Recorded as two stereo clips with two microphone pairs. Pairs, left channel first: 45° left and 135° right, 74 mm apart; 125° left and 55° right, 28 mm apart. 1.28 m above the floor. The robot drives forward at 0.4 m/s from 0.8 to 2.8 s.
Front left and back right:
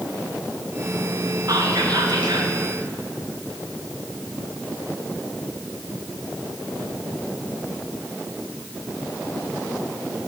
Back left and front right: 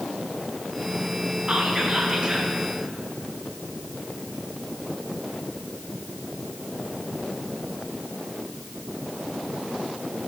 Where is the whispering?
105° right, 1.2 m; by 2.5 s 125° right, 1.3 m.